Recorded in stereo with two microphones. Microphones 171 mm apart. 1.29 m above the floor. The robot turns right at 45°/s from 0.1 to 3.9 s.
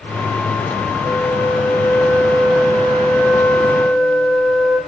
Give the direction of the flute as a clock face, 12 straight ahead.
8 o'clock.